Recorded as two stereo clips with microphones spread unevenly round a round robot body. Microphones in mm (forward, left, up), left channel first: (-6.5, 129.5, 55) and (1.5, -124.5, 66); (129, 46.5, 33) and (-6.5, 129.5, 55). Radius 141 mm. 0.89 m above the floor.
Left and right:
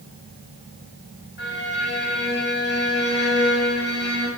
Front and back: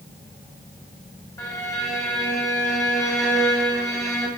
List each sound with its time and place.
1.4 s a violin: 40° left, 3 m